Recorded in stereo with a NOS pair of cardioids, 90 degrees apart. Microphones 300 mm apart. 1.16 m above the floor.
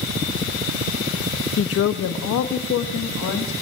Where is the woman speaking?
45° left, 0.7 m; by 3.5 s 80° left, 2.0 m.